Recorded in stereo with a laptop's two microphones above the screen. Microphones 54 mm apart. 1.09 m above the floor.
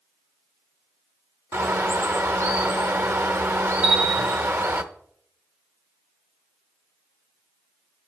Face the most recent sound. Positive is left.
turn(degrees=-25)  # may be behind; listen again after turning